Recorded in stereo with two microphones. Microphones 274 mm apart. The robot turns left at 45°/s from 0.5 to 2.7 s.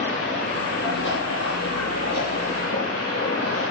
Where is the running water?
160° left, 5.5 m; by 3.7 s 60° left, 5.5 m.